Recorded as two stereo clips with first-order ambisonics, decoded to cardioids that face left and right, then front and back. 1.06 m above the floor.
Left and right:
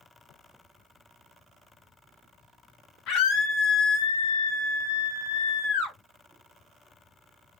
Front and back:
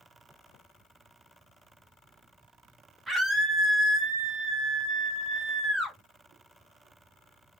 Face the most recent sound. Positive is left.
turn(degrees=100)